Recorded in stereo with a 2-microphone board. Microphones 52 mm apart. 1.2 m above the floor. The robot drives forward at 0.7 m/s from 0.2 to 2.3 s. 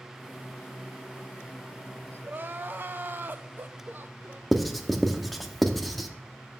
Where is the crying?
40° right (ahead or behind), 0.5 m.